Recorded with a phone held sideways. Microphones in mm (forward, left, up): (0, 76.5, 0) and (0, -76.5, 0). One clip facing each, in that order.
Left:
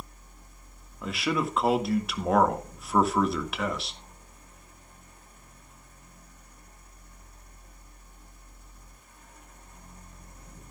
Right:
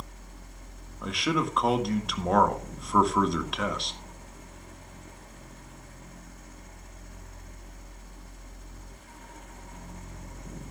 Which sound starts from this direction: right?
A fan, at 0.0 s.